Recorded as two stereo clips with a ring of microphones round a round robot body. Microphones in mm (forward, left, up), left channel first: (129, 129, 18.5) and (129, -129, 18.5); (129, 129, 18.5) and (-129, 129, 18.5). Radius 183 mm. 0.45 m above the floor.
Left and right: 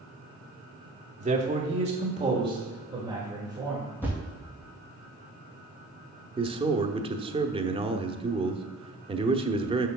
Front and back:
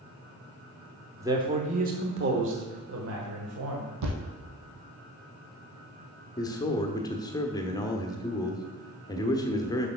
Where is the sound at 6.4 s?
55° right, 0.8 m.